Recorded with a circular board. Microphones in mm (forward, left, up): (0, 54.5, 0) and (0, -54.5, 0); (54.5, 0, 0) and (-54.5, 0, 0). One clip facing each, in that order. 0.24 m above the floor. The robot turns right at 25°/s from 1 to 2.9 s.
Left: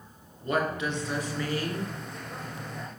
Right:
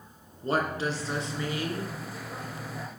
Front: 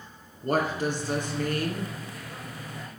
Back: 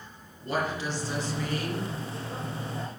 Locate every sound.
0.4 s a woman speaking: 35° right, 2.5 m; by 1.9 s 10° right, 2.5 m